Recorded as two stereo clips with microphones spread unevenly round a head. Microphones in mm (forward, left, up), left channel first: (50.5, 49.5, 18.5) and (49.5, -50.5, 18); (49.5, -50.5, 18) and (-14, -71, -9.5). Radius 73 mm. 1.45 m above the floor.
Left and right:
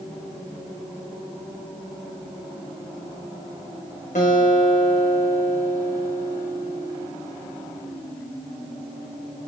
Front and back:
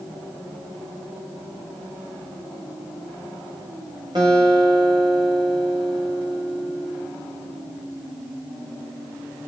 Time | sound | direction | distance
4.2 | a guitar | 130° left | 4.5 m